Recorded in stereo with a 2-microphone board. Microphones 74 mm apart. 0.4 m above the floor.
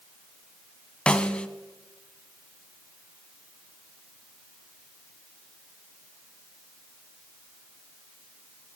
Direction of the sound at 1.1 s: 15° left (ahead or behind).